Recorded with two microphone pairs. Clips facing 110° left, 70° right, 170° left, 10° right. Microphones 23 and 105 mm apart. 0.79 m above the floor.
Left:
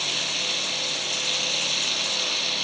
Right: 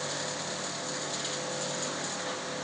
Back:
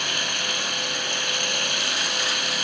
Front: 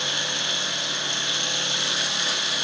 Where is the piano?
I don't hear a piano.